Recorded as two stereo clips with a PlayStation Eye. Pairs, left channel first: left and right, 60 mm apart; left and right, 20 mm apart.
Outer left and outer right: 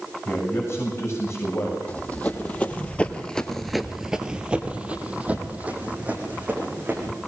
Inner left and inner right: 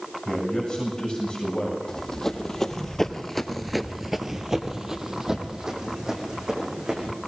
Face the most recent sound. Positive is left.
turn(degrees=-25)  # may be behind; listen again after turning